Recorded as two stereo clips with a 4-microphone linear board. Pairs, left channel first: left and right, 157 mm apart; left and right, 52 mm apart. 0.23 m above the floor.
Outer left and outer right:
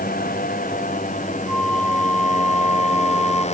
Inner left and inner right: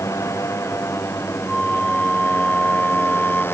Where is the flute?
5° left (ahead or behind).